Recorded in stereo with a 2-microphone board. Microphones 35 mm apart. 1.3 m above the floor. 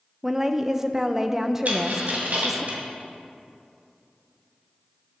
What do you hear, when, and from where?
0.2 s a woman speaking: 15° right (ahead or behind), 0.6 m
1.6 s a dropped coin: 55° right (ahead or behind), 2.5 m